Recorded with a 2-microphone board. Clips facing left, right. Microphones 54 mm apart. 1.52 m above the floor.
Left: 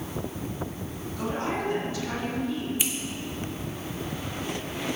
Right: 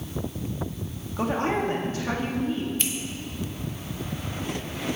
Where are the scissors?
10° left (ahead or behind), 1.2 m.